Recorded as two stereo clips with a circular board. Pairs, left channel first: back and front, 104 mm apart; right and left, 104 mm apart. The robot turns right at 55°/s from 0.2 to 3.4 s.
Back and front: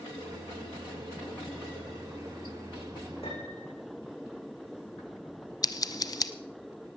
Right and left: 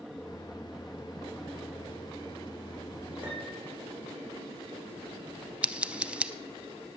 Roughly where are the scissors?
Behind.